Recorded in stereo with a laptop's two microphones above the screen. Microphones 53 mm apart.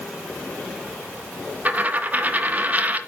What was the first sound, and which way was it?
A dropped coin, 30° right (ahead or behind).